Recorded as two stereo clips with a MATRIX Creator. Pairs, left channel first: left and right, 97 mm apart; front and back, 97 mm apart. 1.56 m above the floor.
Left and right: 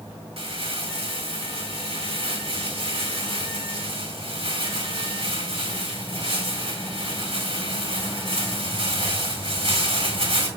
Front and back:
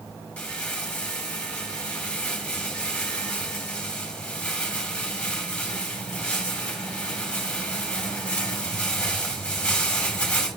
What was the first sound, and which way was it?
Crumpling, 80° right.